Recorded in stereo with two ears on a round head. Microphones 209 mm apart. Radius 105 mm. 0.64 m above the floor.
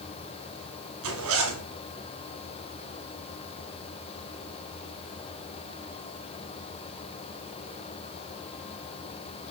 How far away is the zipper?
About 3 m.